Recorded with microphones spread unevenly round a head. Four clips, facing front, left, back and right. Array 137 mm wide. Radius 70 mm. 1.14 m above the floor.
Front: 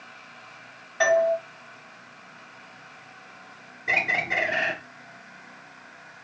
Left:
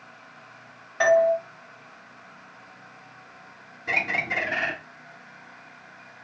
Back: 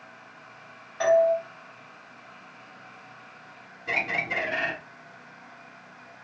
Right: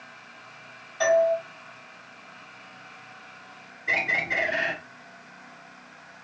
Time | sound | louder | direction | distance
1.0 | a doorbell | left 2 dB, back 1 dB | 75° left | 1.0 m
3.9 | a bird | even, front 3 dB | 90° left | 1.9 m